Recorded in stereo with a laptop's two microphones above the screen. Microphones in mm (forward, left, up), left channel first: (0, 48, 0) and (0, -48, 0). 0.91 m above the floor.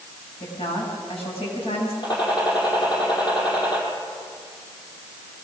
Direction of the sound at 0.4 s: 75° left (ahead or behind).